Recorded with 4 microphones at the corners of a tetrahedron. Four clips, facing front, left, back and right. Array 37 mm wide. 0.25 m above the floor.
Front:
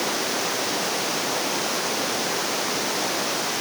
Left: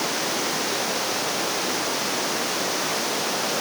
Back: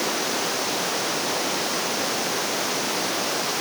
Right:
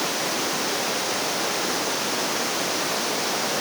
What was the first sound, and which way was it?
Only background noise.